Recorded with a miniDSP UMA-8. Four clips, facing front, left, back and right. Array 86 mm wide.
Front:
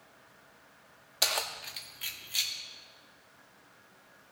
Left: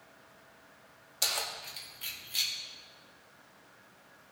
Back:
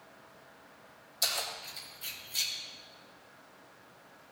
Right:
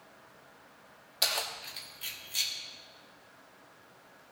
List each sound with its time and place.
1.2 s keys jangling: 15° right, 0.9 m; by 2.5 s 5° left, 1.4 m